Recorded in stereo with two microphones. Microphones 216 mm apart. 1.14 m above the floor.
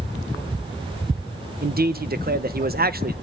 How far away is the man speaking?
About 1.0 m.